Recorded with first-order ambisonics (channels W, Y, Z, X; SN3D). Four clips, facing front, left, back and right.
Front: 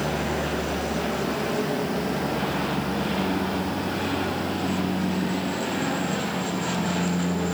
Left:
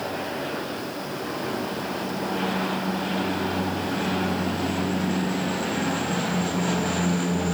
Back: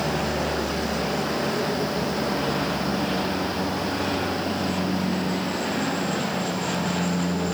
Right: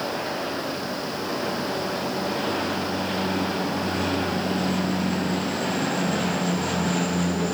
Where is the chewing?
I don't hear chewing.